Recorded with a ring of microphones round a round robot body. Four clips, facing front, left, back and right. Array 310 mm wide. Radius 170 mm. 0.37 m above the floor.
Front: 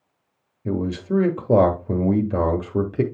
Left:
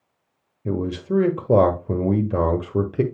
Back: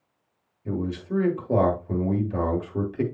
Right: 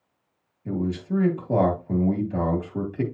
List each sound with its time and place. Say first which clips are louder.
0.7 s a man speaking: left 3 dB, front 5 dB; 50° left, 1.4 m